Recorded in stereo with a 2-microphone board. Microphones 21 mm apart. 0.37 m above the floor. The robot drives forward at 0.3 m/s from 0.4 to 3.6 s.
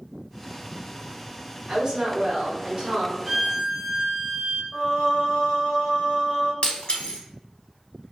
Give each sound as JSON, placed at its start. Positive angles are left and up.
{"t": 1.7, "sound": "a woman speaking", "side_deg": -25, "distance_m": 1.4}
{"t": 3.2, "sound": "a violin", "side_deg": -5, "distance_m": 0.6}
{"t": 4.7, "sound": "singing", "side_deg": 30, "distance_m": 1.7}
{"t": 6.6, "sound": "breaking glass", "side_deg": 60, "distance_m": 0.7}